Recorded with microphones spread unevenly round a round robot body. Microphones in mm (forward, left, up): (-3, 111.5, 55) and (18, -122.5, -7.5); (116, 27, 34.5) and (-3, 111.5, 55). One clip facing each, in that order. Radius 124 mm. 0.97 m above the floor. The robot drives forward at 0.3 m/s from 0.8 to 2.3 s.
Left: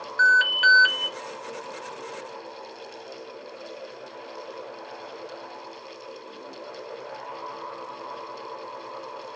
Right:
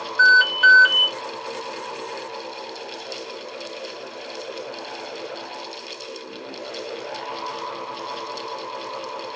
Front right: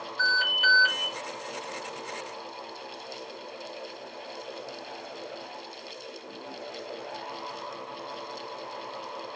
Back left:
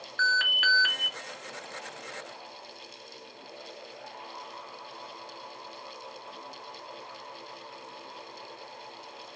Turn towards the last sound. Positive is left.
turn(degrees=-175)